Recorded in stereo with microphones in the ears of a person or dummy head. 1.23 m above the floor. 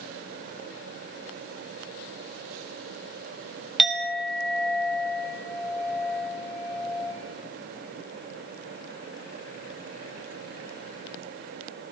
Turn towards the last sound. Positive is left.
turn(degrees=5)  # may be behind; listen again after turning